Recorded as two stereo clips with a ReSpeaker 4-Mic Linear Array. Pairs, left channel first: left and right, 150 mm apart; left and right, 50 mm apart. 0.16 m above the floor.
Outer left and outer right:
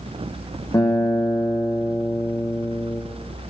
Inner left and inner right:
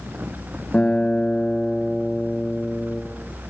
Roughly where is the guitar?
Centre.